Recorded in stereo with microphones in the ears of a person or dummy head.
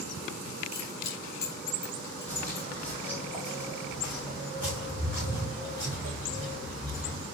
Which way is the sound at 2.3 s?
10° left (ahead or behind).